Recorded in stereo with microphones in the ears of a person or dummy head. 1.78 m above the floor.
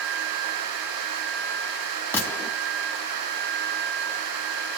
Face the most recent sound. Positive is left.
turn(degrees=15)  # may be behind; listen again after turning